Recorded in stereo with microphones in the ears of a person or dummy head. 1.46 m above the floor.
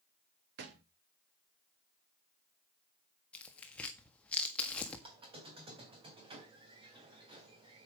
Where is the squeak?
30° right (ahead or behind), 3.5 m.